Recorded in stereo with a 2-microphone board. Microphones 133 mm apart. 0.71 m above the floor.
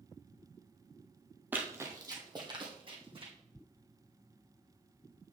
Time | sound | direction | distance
1.5 | running footsteps | 15° right (ahead or behind) | 1.2 m